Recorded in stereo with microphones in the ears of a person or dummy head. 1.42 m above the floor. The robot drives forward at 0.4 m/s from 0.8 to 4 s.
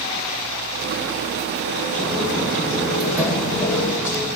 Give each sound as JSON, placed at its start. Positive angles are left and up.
{"t": 2.0, "sound": "footsteps", "side_deg": 5, "distance_m": 3.0}